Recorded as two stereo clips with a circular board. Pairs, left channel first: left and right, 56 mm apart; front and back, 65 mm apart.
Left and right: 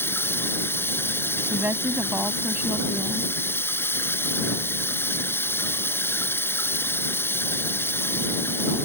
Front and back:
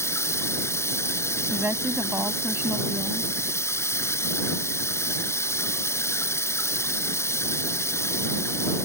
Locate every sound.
0.0 s running water: 45° left
1.5 s a woman speaking: 135° right